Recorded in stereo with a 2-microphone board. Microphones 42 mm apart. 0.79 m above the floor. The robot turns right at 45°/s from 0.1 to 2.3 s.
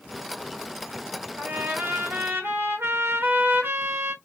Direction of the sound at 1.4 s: 140° right.